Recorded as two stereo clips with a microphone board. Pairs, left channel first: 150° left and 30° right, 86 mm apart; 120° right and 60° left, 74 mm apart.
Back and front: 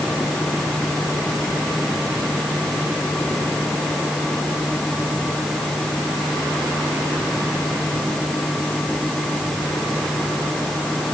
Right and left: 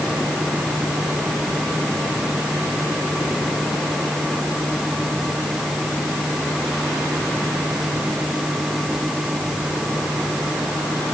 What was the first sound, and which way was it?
Only background noise.